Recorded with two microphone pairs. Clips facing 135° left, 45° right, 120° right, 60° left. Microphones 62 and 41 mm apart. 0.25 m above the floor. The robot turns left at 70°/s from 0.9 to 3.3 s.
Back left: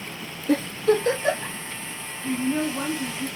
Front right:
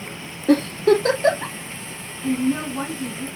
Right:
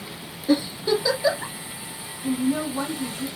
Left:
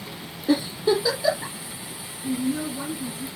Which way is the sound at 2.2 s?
75° right.